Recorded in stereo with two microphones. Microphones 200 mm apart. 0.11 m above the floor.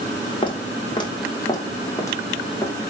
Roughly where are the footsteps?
Left.